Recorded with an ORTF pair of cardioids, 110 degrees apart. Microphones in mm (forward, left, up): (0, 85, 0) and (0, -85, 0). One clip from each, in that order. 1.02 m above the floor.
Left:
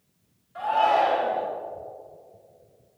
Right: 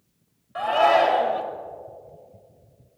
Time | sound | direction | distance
0.6 | a shout | 60° right | 2.5 m